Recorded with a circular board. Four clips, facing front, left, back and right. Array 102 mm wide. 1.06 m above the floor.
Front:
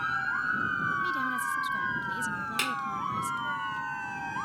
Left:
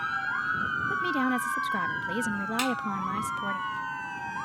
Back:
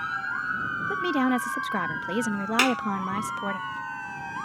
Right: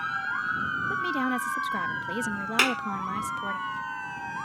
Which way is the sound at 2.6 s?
125° right.